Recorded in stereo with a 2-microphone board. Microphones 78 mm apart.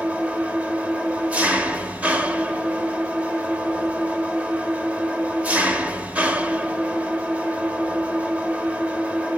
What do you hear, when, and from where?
0.0 s an engine running: 20° right (ahead or behind), 1.3 m